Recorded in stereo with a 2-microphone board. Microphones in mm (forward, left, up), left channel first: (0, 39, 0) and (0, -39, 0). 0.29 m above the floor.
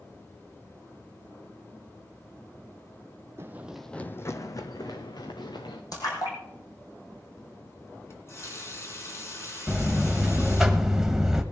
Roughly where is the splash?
Left.